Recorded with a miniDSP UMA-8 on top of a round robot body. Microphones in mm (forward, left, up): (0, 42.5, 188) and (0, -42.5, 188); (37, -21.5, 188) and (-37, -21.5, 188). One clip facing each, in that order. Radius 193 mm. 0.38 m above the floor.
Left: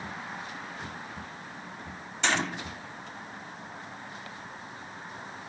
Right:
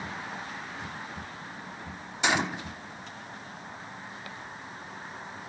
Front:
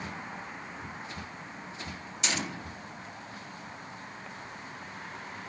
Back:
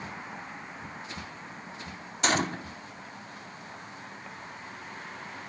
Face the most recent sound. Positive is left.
turn(degrees=-165)